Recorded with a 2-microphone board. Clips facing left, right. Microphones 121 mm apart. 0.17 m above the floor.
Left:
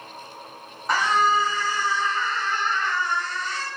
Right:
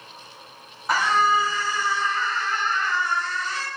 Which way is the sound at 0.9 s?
Centre (ahead or behind).